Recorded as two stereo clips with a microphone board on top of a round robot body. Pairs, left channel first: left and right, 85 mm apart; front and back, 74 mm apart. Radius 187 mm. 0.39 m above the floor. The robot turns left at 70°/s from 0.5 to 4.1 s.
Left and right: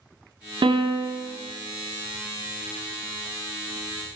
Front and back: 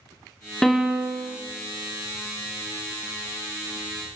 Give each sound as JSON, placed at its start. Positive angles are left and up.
{"t": 0.6, "sound": "a piano", "azimuth_deg": -85, "distance_m": 0.6}